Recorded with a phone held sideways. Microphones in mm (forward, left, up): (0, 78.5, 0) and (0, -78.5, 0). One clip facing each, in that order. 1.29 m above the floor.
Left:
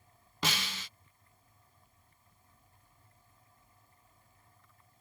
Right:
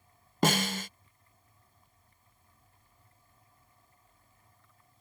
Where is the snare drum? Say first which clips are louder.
Right 10 dB; 50° right (ahead or behind).